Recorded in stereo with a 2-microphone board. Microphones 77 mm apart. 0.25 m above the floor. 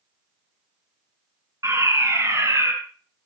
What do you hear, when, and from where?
1.6 s a fire alarm: 40° right (ahead or behind), 6.5 m